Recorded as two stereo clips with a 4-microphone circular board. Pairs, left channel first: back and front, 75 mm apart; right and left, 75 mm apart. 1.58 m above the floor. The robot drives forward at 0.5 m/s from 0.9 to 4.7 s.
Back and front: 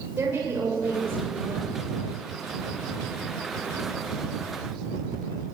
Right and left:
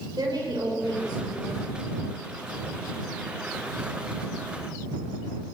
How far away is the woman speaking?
About 7.5 m.